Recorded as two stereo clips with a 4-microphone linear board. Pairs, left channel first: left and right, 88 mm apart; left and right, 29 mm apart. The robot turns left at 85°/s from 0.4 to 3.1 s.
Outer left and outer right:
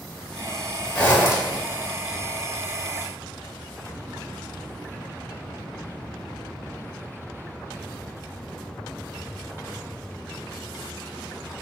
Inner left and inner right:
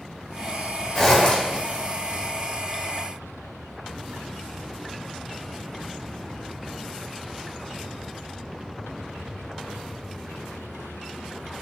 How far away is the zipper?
About 1.1 m.